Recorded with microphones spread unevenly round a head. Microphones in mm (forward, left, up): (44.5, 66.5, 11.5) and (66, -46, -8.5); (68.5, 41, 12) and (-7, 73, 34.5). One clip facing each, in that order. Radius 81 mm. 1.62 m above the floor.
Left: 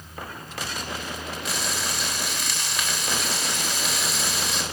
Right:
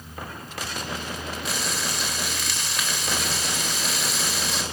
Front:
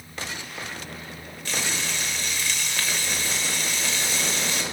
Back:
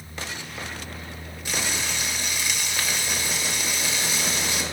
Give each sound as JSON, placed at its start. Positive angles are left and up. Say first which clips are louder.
{"t": 1.4, "sound": "frying", "louder": "even, back 1 dB", "azimuth_deg": 170, "distance_m": 1.4}